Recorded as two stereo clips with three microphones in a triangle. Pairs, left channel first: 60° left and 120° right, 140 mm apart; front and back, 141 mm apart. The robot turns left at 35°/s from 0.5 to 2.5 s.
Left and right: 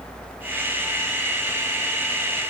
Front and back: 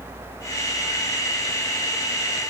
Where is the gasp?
No gasp in this recording.